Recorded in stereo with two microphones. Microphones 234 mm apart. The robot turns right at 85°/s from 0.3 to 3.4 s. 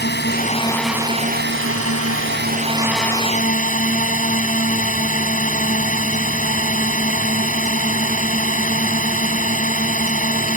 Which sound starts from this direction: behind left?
A drone, at 0.0 s.